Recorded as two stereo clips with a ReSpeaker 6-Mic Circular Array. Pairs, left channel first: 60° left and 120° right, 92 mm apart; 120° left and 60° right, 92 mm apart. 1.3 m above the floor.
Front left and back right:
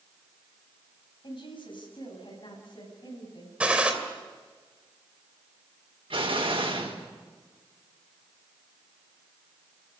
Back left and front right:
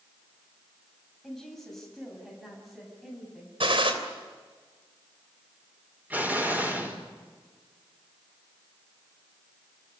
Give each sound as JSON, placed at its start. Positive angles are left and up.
{"t": 1.2, "sound": "a woman speaking", "azimuth_deg": 35, "distance_m": 7.5}
{"t": 3.6, "sound": "a gunshot", "azimuth_deg": -45, "distance_m": 3.0}
{"t": 6.1, "sound": "an explosion", "azimuth_deg": -130, "distance_m": 5.0}